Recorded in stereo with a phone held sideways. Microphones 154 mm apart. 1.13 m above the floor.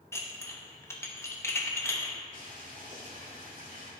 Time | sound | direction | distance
0.1 | dishes clattering | 20° left (ahead or behind) | 0.9 m
2.3 | boiling | 65° right (ahead or behind) | 3 m